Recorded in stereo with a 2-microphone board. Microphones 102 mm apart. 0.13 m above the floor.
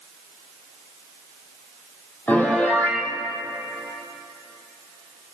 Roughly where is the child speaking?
No child speaking in this recording.